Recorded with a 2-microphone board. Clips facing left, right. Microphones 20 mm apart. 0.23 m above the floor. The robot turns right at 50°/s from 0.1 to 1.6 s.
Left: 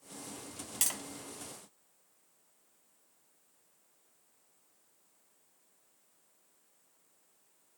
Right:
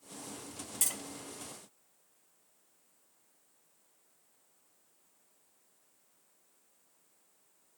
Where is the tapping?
50° left (ahead or behind), 1.0 m; by 1.0 s 45° left (ahead or behind), 1.0 m.